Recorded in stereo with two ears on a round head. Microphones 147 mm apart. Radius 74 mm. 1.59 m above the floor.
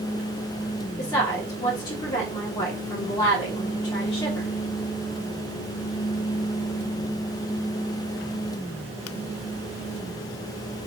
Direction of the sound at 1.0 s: 25° left (ahead or behind).